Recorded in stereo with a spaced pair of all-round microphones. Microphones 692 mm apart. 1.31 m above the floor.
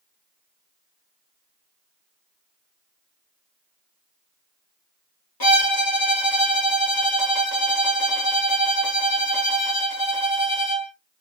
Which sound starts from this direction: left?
A violin, at 5.4 s.